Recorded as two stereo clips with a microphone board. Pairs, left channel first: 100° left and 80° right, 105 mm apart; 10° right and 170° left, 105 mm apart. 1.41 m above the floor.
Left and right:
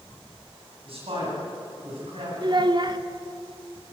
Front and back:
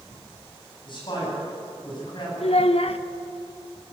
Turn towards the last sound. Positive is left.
turn(degrees=-30)